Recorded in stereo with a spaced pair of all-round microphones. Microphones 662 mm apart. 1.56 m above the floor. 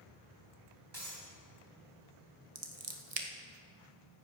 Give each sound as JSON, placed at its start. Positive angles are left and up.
{"t": 0.9, "sound": "breaking glass", "side_deg": -35, "distance_m": 3.5}
{"t": 2.5, "sound": "scissors", "side_deg": -60, "distance_m": 1.1}